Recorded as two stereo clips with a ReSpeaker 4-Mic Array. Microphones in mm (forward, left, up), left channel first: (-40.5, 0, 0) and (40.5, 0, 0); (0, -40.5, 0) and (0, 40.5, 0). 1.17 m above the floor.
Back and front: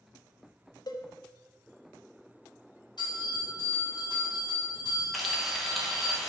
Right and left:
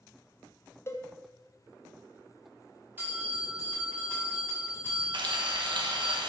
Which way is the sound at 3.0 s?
155° left.